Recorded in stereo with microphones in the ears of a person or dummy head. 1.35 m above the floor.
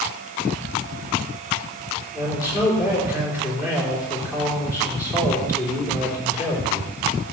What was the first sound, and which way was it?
A man speaking, 10° right (ahead or behind).